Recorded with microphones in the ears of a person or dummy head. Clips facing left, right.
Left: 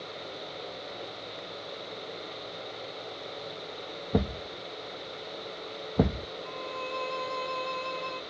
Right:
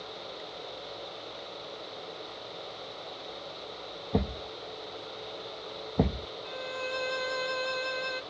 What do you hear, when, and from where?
4.1 s a thud: 10° left (ahead or behind)
6.5 s a violin: 20° right (ahead or behind)